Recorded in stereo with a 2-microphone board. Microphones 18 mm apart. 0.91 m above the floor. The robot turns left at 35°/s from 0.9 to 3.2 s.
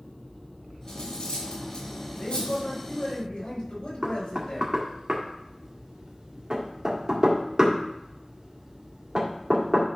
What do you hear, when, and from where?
0.9 s cutlery clinking: 40° left (ahead or behind), 3.5 m; by 2.6 s 80° left, 3.5 m
2.2 s a man speaking: 95° left, 4.5 m; by 4.7 s 60° left, 4.5 m
4.0 s knocking: 45° right (ahead or behind), 1.6 m